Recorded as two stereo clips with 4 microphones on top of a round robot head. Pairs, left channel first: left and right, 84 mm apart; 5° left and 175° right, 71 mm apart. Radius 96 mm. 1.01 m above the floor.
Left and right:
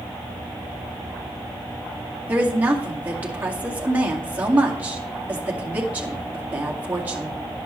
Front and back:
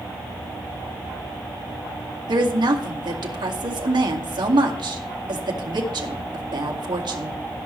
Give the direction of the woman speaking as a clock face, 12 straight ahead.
5 o'clock.